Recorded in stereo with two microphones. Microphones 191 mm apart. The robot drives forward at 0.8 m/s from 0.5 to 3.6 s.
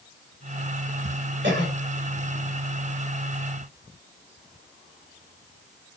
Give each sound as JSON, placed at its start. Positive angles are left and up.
{"t": 1.4, "sound": "a cough", "side_deg": -80, "distance_m": 5.0}